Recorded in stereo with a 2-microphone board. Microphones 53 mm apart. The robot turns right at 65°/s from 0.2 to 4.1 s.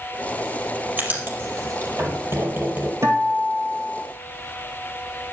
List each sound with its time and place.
1.0 s writing: 30° right (ahead or behind), 3.5 m; by 2.9 s 20° right (ahead or behind), 3.5 m
3.0 s a guitar: 90° right, 2.5 m; by 4.0 s 25° right, 2.5 m